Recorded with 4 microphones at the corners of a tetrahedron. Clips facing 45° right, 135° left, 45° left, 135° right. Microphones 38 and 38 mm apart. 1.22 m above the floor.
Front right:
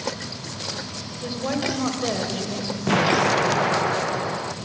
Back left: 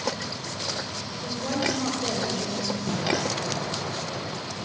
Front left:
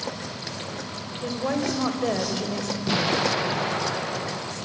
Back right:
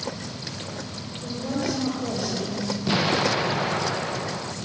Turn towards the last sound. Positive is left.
turn(degrees=-50)